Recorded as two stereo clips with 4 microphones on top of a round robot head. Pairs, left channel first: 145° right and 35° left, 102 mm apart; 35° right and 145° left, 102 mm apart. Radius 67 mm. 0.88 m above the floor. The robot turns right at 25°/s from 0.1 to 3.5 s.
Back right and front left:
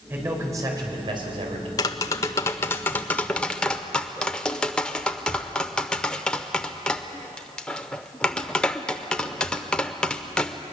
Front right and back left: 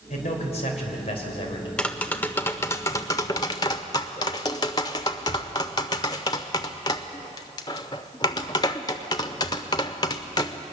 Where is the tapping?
110° right, 0.6 m; by 10.6 s 70° right, 0.6 m.